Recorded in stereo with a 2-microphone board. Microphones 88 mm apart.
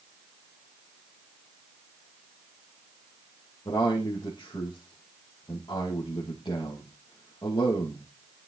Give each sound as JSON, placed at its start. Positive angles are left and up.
{"t": 3.6, "sound": "a man speaking", "side_deg": 60, "distance_m": 3.5}